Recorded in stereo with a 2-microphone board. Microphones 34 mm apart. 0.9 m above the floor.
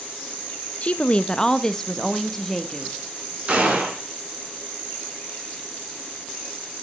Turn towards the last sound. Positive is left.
turn(degrees=-35)  # may be behind; listen again after turning